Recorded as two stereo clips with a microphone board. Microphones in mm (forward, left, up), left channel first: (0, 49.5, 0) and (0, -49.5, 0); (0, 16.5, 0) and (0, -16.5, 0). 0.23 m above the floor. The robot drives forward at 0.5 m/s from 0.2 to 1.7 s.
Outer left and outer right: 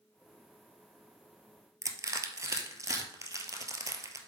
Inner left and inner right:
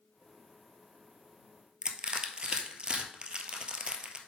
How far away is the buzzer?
I don't hear a buzzer.